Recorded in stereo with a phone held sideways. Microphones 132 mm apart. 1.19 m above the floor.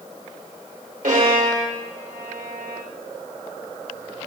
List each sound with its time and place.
1.0 s a violin: 90° right, 3.5 m